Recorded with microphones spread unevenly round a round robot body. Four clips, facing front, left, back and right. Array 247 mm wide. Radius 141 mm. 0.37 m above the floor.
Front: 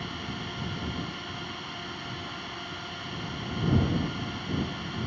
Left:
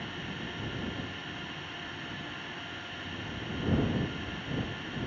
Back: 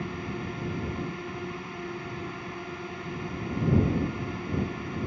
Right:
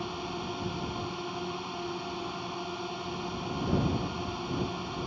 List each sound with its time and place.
0.0 s a drone: 130° right